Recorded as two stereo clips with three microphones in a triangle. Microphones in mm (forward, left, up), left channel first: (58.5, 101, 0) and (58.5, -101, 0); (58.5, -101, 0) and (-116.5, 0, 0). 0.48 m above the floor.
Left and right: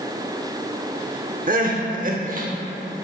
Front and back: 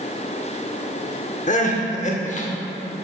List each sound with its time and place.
1.5 s crying: 65° right, 0.9 m